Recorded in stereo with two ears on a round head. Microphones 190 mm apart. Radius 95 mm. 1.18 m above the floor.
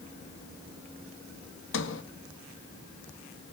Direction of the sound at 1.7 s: 65° left (ahead or behind).